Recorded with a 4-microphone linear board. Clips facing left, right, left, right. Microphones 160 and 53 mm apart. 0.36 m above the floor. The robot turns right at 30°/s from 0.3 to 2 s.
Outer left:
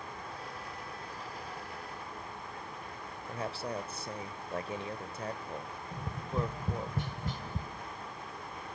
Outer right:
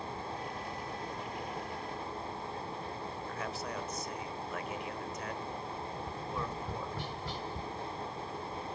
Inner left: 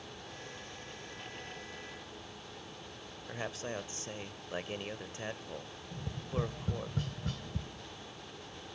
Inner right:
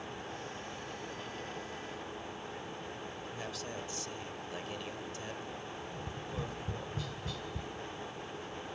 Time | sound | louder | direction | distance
3.3 | a man speaking | outer left 5 dB, inner left 6 dB | 30° left (ahead or behind) | 1.1 m
5.9 | tapping | outer left 2 dB, inner left 7 dB | 45° left (ahead or behind) | 1.9 m